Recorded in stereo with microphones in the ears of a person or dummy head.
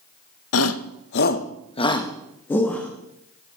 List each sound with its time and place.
0.5 s a shout: 85° left, 0.6 m; by 2.9 s 5° left (ahead or behind), 1.2 m